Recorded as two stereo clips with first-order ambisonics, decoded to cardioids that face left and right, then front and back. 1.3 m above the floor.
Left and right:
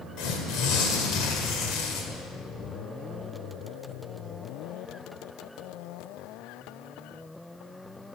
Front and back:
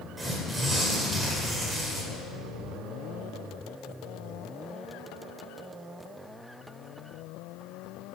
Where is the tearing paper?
105° left, 1.9 m.